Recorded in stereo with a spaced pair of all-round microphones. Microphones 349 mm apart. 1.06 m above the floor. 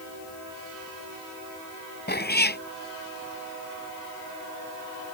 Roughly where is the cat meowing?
Left.